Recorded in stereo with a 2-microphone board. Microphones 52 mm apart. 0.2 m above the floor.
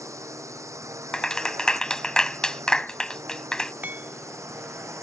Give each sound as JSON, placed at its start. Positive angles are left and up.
{"t": 0.0, "sound": "a drone", "side_deg": -80}
{"t": 1.1, "sound": "a clap", "side_deg": 15}
{"t": 3.8, "sound": "hammering", "side_deg": -35}